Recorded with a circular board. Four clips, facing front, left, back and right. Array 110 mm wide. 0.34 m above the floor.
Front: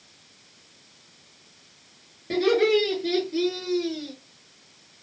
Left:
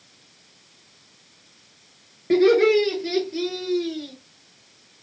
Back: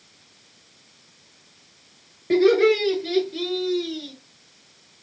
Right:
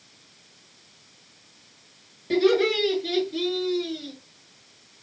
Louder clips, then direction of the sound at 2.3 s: Left 5 dB, back 4 dB; 120° left.